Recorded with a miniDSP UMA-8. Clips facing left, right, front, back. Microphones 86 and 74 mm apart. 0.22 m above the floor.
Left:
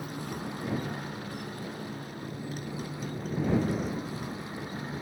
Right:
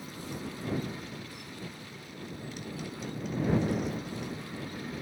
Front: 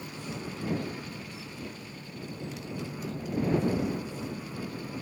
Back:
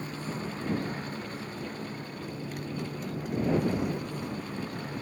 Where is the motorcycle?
130° left; by 5.0 s 145° left.